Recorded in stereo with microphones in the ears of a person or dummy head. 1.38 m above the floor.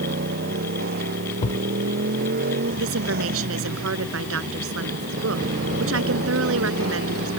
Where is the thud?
40° left (ahead or behind).